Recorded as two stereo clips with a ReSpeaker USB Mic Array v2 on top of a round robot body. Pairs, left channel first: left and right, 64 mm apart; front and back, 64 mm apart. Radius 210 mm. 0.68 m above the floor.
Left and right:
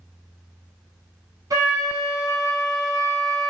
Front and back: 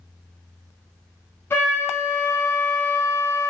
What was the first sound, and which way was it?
A flute, 55° right.